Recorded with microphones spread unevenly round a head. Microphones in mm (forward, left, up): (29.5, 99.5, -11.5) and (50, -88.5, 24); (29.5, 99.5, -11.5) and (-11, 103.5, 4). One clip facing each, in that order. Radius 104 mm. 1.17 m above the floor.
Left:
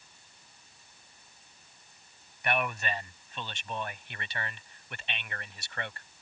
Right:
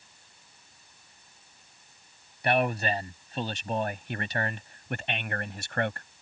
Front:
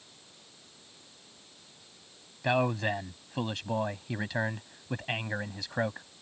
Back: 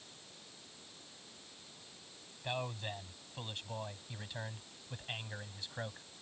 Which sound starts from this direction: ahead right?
A man speaking, at 2.4 s.